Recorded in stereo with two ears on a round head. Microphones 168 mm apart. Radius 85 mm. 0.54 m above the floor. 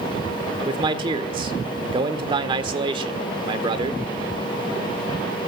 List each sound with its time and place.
0.7 s a man speaking: 25° right (ahead or behind), 1.7 m